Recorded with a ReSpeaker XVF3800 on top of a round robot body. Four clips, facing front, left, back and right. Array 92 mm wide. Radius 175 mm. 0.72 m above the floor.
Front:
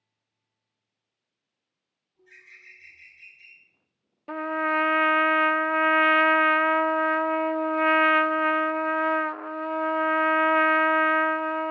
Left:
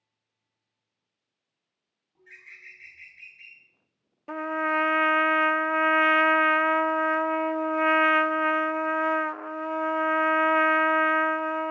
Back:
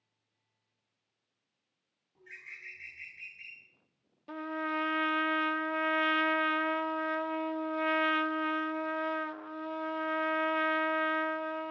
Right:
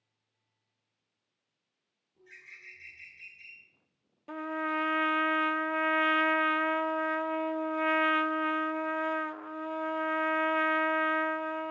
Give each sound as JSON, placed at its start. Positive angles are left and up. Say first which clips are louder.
{"t": 2.1, "sound": "a bird", "louder": "left 3 dB, back 3 dB", "azimuth_deg": 140, "distance_m": 7.5}
{"t": 4.3, "sound": "a trumpet", "louder": "left 6 dB, front 9 dB", "azimuth_deg": 35, "distance_m": 0.5}